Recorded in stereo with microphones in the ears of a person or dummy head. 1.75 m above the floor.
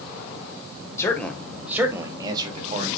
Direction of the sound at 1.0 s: 10° left (ahead or behind).